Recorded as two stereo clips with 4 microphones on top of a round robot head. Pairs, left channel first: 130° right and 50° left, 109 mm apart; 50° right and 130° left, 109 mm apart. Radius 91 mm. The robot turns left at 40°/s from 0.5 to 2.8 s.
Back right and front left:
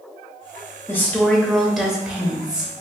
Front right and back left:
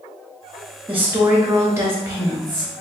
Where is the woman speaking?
Straight behind, 1.0 m; by 2.7 s 105° left, 1.0 m.